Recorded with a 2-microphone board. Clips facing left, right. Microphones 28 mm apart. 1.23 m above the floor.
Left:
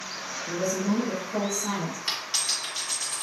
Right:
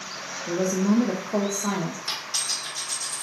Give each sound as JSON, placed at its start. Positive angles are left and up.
{"t": 0.5, "sound": "a woman speaking", "side_deg": -70, "distance_m": 0.7}
{"t": 2.1, "sound": "a dropped coin", "side_deg": 45, "distance_m": 1.7}